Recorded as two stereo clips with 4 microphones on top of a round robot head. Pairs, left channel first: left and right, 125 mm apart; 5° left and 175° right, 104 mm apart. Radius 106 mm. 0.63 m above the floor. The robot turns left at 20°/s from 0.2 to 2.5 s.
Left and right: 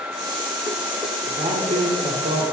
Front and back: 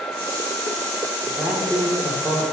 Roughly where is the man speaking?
Right.